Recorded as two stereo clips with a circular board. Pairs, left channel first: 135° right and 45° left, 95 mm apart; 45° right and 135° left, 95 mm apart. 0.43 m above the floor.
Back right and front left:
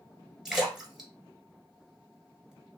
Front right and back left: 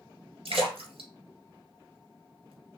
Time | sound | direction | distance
0.5 | a splash | 135° left | 1.7 m